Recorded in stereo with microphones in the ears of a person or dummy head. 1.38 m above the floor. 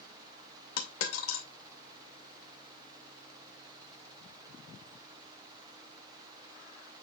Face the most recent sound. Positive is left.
turn(degrees=70)  # may be behind; listen again after turning